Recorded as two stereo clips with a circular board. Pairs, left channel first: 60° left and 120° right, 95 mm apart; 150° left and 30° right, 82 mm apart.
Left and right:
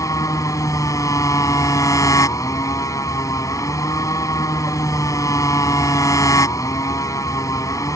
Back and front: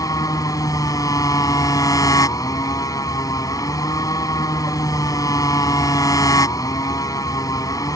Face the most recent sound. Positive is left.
turn(degrees=110)